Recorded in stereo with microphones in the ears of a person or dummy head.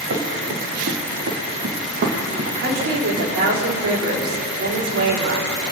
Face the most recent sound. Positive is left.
turn(degrees=-80)